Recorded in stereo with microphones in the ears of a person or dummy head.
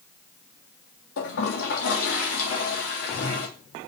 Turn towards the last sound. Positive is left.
turn(degrees=75)  # may be behind; listen again after turning